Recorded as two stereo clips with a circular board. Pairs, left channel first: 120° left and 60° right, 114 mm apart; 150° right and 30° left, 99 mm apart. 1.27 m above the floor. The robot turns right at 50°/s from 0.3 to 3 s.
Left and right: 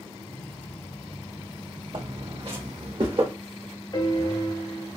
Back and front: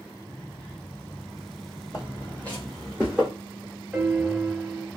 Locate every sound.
1.9 s footsteps: 100° right, 2.5 m; by 3.3 s 50° right, 2 m
3.9 s a piano: 110° left, 0.9 m